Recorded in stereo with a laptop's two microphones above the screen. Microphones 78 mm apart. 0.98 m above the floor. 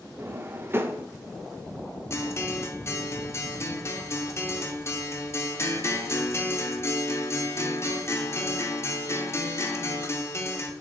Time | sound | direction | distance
0.2 | a drawer | 30° right (ahead or behind) | 0.8 m
2.1 | a guitar | 35° left (ahead or behind) | 0.8 m